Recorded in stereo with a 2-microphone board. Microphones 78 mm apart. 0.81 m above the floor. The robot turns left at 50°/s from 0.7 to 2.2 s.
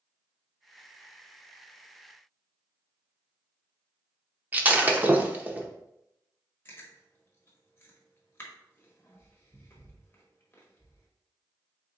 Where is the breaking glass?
20° right (ahead or behind), 0.6 m.